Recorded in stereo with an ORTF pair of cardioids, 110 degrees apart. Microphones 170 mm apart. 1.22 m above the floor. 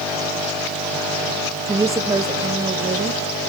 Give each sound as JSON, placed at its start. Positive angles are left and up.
{"t": 1.7, "sound": "a woman speaking", "azimuth_deg": -15, "distance_m": 1.1}